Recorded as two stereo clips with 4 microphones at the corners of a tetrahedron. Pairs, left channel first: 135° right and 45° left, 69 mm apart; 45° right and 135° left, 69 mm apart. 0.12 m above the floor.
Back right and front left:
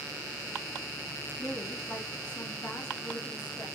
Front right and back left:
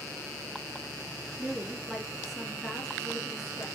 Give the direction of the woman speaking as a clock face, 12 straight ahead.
7 o'clock.